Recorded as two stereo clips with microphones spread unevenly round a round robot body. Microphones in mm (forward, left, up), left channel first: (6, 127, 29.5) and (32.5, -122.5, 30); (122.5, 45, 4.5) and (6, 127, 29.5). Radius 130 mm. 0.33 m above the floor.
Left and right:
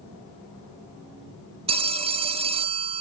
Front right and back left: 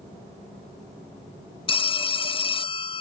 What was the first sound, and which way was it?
A phone ringing, 25° right.